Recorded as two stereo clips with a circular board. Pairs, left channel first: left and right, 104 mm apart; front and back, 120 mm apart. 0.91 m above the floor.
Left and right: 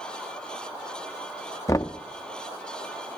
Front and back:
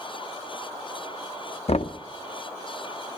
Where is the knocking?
30° left, 0.8 m.